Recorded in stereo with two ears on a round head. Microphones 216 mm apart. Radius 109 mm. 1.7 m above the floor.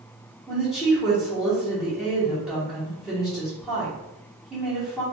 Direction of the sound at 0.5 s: Centre (ahead or behind).